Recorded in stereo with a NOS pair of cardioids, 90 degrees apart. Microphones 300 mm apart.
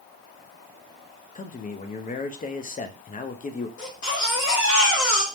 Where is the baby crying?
50° left, 2 m.